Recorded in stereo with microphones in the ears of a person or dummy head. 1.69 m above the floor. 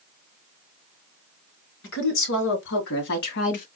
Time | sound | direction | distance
1.8 | a woman speaking | 85° left | 3 m